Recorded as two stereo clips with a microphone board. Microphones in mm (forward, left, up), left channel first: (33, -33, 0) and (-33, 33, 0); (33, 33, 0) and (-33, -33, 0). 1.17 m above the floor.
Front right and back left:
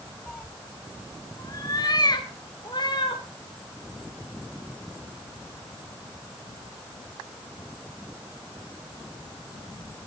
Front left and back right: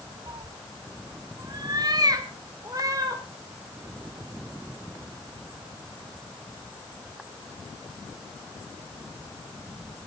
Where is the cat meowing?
120° right, 0.6 m; by 3.2 s 85° right, 2.5 m.